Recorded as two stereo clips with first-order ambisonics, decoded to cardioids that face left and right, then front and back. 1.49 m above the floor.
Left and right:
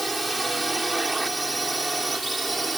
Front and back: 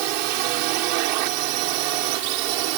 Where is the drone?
175° right; by 2.8 s 170° right.